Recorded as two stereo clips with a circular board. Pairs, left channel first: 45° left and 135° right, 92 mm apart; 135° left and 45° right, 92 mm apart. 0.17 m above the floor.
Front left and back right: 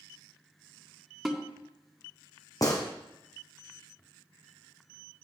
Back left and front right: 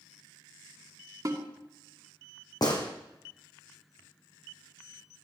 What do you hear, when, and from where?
1.2 s a snare drum: 45° right, 2 m
2.6 s a gunshot: 95° left, 2 m